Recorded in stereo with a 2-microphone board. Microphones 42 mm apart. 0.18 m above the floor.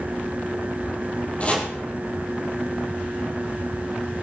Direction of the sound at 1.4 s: 30° left (ahead or behind).